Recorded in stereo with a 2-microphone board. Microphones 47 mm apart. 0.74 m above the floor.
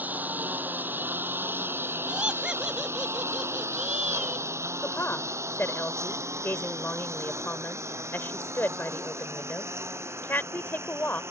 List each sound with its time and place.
0.0 s a lawn mower: 35° right (ahead or behind); by 11.3 s 65° right (ahead or behind)
2.1 s laughter: 20° right (ahead or behind)
4.8 s a woman speaking: 50° left (ahead or behind)